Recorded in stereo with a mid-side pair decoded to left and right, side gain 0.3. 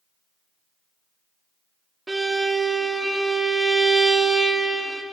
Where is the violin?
25° right, 1.2 m.